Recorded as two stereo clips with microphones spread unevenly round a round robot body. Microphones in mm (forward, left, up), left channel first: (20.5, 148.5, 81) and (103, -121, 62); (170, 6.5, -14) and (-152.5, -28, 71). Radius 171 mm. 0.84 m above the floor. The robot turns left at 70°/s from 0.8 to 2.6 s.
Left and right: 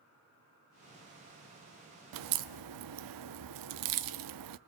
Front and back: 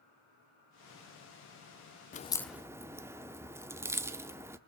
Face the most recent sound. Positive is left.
turn(degrees=-95)